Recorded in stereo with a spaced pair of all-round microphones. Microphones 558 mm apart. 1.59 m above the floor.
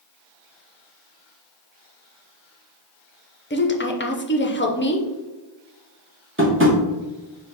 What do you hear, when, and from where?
3.5 s a woman speaking: 20° left (ahead or behind), 0.6 m
6.4 s tapping: 20° right (ahead or behind), 0.9 m